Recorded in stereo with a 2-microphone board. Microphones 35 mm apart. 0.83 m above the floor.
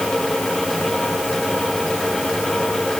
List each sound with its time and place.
Only background noise.